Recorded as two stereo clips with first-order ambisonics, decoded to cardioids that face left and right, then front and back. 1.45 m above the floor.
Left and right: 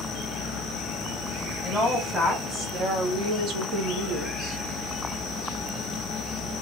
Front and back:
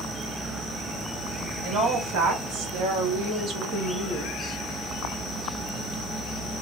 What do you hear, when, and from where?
1.6 s a woman speaking: 170° right, 1.4 m; by 4.6 s 75° right, 0.7 m